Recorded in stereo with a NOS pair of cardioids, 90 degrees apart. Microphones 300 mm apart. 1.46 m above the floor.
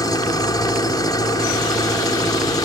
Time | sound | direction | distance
0.0 | an engine running | 15° left | ?